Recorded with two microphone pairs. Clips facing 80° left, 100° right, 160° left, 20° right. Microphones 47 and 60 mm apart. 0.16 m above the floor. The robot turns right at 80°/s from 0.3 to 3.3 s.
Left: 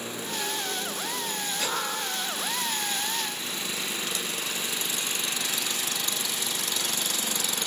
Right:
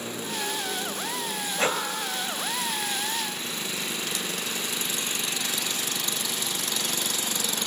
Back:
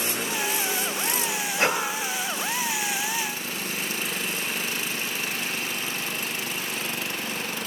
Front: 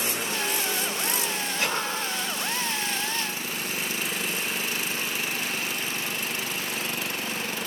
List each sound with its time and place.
1.6 s breathing: 155° right, 2.5 m; by 1.8 s 140° right, 2.5 m